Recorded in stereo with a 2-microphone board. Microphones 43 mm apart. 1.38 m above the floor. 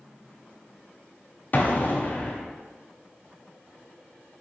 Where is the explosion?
40° left (ahead or behind), 0.5 m.